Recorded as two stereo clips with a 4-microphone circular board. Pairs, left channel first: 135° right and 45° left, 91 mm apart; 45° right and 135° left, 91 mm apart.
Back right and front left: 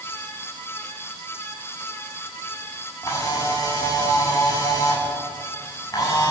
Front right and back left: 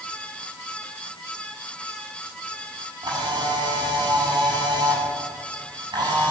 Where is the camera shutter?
175° left, 9 m.